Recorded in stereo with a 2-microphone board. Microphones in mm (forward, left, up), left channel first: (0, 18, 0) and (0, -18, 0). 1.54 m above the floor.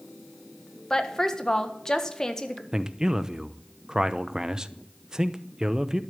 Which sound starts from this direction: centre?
A woman speaking, at 0.9 s.